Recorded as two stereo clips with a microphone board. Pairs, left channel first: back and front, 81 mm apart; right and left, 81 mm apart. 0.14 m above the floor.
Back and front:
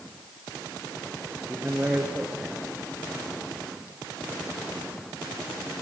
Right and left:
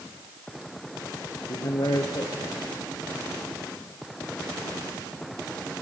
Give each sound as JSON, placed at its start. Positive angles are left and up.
{"t": 1.5, "sound": "a man speaking", "azimuth_deg": -75, "distance_m": 2.0}